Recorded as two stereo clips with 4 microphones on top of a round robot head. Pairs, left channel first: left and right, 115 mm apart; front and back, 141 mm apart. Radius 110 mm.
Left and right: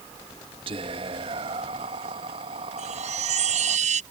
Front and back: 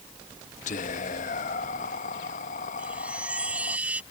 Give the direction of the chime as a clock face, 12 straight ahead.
3 o'clock.